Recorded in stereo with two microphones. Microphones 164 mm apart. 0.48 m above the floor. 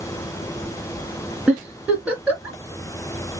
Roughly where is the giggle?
Centre.